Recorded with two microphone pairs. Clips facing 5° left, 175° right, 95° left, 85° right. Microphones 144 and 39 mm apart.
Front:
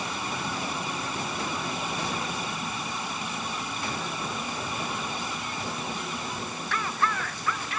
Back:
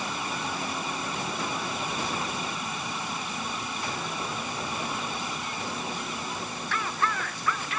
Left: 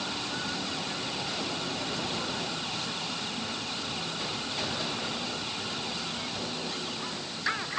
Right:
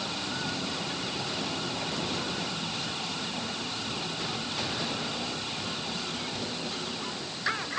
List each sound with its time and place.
Only background noise.